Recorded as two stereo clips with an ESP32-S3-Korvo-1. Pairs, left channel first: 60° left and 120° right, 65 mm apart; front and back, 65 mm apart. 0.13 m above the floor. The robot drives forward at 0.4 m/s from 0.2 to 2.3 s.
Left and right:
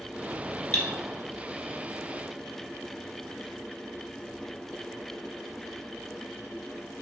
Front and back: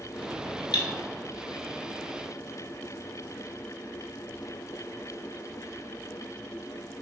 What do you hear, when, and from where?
0.7 s cutlery clinking: 115° left, 1.2 m